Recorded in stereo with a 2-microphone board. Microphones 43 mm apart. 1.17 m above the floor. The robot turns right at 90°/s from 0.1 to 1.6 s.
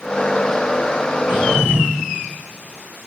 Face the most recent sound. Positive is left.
turn(degrees=-50)  # may be behind; listen again after turning